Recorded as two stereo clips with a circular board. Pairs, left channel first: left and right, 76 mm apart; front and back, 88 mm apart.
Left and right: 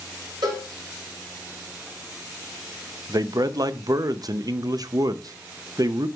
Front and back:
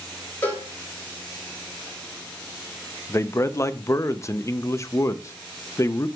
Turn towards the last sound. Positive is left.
turn(degrees=-55)